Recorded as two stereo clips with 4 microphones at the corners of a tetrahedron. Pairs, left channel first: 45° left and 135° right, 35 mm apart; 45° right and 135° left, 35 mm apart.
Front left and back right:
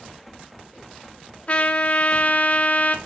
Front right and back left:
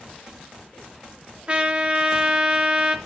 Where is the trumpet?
90° left, 1.9 m.